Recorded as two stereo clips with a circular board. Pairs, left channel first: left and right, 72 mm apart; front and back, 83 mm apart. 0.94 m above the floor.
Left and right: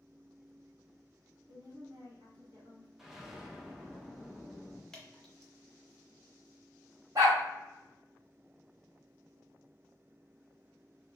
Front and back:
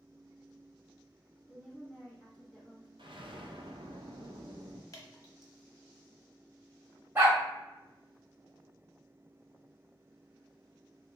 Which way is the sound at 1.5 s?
70° right.